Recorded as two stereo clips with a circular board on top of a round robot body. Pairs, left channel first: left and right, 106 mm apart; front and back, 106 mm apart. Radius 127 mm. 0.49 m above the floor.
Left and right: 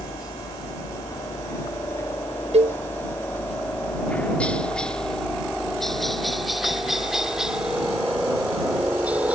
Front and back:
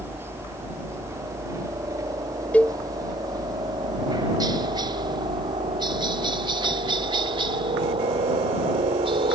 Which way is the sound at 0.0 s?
120° left.